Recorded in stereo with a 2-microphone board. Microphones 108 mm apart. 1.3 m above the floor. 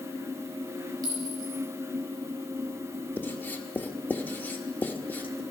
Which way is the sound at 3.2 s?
15° left (ahead or behind).